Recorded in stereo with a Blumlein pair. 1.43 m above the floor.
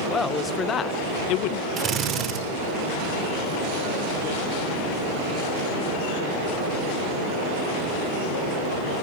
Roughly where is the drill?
Ahead right.